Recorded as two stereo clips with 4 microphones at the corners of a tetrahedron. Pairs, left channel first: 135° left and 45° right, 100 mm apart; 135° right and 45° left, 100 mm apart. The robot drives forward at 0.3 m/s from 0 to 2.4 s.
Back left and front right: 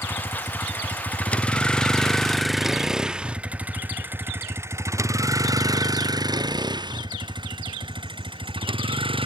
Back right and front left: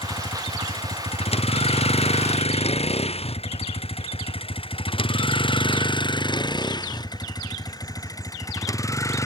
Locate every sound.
0.0 s a vehicle: 160° right; by 9.3 s 75° right